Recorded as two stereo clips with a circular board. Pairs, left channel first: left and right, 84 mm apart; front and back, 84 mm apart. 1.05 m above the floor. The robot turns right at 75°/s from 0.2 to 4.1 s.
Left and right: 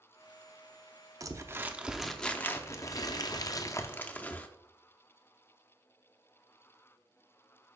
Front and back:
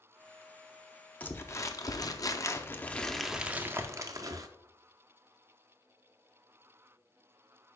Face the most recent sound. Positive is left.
turn(degrees=155)